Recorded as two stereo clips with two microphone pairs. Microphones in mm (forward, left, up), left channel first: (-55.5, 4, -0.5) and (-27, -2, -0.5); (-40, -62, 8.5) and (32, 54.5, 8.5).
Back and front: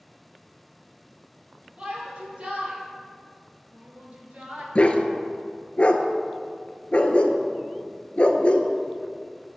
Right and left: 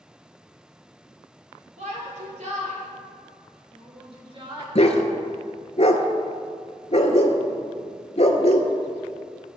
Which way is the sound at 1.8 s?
35° left.